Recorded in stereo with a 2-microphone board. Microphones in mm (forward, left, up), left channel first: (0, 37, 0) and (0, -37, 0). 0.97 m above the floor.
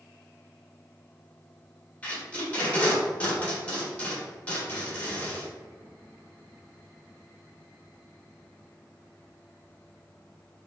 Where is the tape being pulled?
20° left (ahead or behind), 1.1 m.